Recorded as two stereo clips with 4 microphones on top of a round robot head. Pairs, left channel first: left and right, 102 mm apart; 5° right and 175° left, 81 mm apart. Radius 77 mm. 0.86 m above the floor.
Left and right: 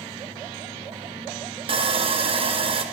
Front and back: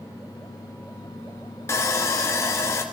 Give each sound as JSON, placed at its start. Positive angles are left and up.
{"t": 1.7, "sound": "sawing", "azimuth_deg": -65, "distance_m": 1.8}